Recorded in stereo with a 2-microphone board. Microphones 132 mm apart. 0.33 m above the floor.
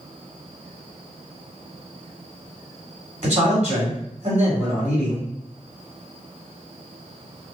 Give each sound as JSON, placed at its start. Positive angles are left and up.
{"t": 3.2, "sound": "a man speaking", "side_deg": -60, "distance_m": 2.0}